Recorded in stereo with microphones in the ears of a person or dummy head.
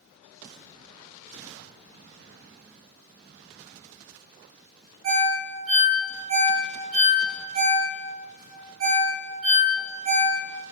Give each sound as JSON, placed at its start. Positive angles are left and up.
{"t": 5.0, "sound": "a ringtone", "side_deg": -70, "distance_m": 0.9}